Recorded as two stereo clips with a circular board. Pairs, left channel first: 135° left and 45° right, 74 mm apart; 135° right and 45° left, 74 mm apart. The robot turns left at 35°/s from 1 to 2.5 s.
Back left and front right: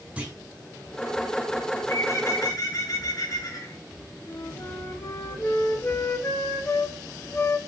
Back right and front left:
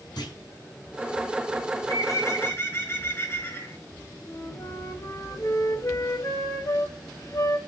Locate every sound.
0.2 s a clunk: 115° right, 5.5 m
1.8 s a bird: 165° right, 3.5 m; by 3.8 s 170° left, 3.5 m
4.3 s a flute: 170° right, 2 m